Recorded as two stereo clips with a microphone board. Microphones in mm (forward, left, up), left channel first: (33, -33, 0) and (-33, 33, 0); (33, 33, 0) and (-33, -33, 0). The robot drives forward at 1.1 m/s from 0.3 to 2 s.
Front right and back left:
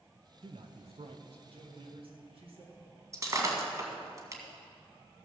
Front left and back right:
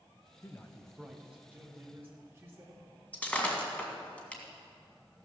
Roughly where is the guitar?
I don't hear a guitar.